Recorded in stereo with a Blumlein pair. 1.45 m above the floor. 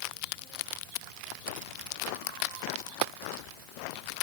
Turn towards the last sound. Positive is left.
turn(degrees=45)